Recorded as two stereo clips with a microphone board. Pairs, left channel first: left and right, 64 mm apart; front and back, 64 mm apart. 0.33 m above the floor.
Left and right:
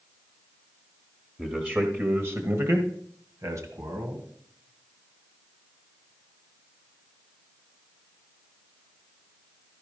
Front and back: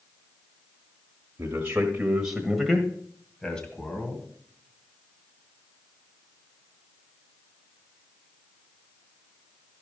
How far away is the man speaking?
About 1.2 m.